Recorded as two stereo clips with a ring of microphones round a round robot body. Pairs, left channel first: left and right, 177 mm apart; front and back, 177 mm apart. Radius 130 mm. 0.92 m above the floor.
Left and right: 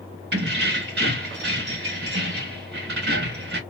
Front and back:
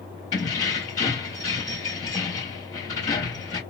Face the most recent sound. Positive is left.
turn(degrees=-75)